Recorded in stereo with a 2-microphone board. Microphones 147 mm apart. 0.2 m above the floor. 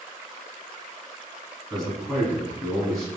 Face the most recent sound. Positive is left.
turn(degrees=5)  # may be behind; listen again after turning